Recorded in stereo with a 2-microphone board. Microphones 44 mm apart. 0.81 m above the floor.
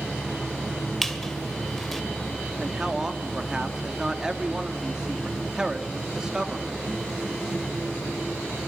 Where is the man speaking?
15° right (ahead or behind), 1.9 m.